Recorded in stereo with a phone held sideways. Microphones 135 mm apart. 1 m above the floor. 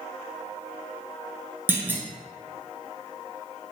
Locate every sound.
1.7 s a clunk: 15° right (ahead or behind), 0.7 m